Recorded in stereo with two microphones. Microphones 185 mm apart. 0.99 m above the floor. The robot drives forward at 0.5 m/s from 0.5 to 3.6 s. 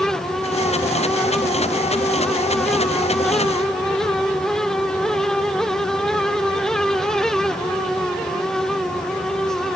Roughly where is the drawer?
I don't hear a drawer.